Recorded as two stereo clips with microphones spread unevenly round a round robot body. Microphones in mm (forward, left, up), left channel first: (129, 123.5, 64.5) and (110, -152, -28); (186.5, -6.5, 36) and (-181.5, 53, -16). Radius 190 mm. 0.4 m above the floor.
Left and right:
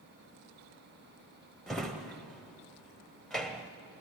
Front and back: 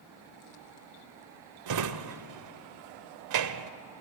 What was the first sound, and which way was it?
A drawer, 170° right.